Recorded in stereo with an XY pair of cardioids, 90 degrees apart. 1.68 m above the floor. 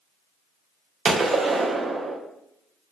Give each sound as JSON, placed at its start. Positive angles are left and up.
{"t": 1.1, "sound": "a gunshot", "azimuth_deg": -50, "distance_m": 0.5}